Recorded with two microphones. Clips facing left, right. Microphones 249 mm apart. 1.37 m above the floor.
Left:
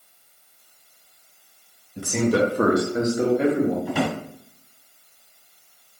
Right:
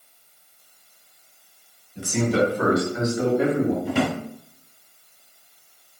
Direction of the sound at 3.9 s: 40° right (ahead or behind).